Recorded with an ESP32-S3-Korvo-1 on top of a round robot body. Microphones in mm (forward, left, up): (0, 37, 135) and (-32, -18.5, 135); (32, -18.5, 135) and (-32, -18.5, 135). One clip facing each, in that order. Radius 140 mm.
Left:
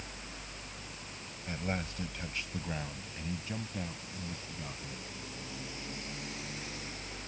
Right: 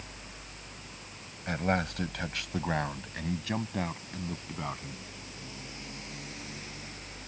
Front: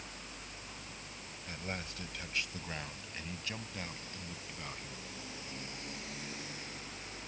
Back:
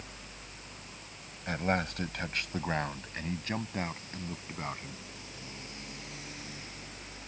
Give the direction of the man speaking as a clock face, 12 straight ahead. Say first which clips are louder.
Right 8 dB, back 12 dB; 5 o'clock.